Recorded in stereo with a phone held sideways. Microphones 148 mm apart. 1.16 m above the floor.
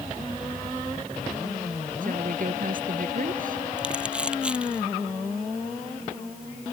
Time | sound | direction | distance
2.0 | a woman speaking | 65° right (ahead or behind) | ?
3.8 | crumpling | 5° right (ahead or behind) | ?